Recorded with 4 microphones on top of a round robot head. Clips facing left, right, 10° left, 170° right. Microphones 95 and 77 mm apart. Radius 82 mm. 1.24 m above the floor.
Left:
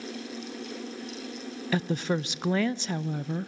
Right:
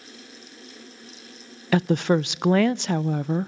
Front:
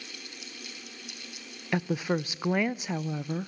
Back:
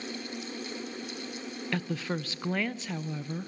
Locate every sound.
1.7 s a woman speaking: 65° right, 0.5 m